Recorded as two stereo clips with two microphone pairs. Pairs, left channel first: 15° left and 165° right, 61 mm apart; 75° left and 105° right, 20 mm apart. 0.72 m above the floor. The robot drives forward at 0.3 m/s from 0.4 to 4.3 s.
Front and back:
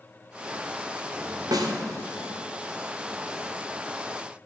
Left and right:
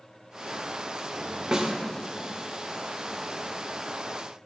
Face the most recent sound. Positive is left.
turn(degrees=-170)